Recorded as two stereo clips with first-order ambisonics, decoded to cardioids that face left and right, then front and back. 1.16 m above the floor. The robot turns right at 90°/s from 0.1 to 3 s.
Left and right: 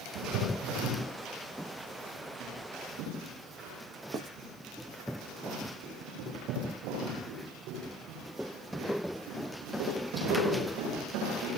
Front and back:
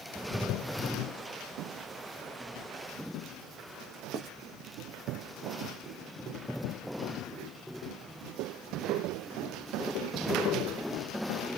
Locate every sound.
4.1 s writing: 145° right, 0.6 m